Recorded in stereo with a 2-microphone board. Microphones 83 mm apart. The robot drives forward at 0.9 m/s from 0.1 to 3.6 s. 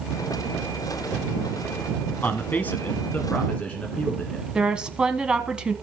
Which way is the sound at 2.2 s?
25° left (ahead or behind).